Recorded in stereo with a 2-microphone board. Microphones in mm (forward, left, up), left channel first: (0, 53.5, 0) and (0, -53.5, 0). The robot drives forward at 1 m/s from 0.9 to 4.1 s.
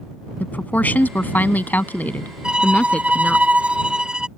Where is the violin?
10° right (ahead or behind).